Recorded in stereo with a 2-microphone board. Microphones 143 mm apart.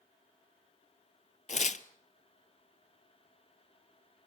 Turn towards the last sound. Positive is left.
turn(degrees=55)  # may be behind; listen again after turning